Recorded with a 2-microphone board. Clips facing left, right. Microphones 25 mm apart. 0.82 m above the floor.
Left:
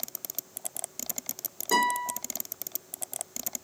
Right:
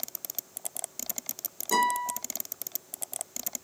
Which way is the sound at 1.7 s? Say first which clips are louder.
Even; 5° left (ahead or behind).